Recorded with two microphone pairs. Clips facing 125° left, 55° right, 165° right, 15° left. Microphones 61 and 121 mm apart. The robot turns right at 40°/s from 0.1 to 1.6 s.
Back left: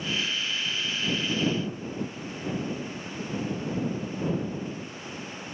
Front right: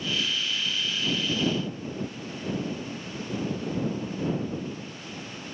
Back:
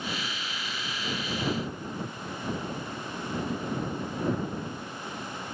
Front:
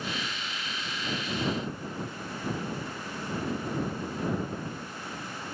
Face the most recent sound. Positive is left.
No sound to turn to.